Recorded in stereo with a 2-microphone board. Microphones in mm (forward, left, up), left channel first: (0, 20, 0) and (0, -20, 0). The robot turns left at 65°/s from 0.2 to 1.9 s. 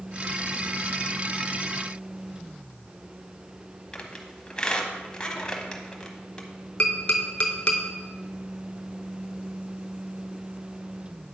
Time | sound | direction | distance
3.9 | a squeak | 20° left (ahead or behind) | 1.1 m
6.8 | tapping | 30° left (ahead or behind) | 0.9 m